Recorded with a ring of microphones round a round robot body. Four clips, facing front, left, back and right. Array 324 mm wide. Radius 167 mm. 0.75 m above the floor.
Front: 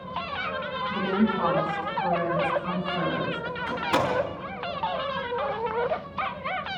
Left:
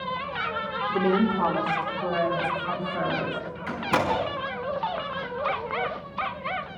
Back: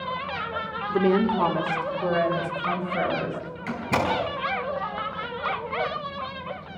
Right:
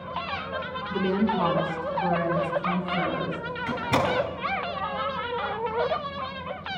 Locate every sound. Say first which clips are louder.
0.9 s a woman speaking: left 2 dB, back 5 dB; straight behind, 2.5 m
3.7 s a door slam: even, even; 140° right, 5 m